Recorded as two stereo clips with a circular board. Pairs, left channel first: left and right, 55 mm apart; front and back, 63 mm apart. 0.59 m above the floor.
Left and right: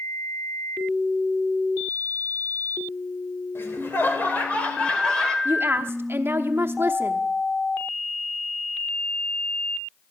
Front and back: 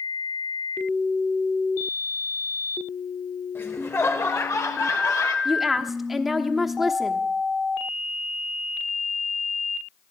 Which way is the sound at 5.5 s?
95° right.